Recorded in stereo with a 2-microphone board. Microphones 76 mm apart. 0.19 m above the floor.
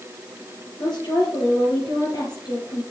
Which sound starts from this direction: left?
A woman speaking, at 0.8 s.